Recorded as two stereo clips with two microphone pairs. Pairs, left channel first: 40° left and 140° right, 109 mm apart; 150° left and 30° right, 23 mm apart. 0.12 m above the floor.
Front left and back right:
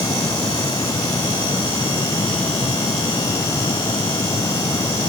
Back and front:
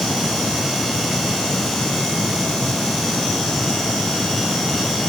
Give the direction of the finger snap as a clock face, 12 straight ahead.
I don't hear a finger snap.